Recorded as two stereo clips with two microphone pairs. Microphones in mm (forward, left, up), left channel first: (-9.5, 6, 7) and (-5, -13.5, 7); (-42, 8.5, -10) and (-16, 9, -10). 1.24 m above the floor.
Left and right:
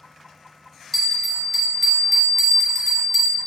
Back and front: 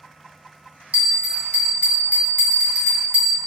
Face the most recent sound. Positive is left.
turn(degrees=15)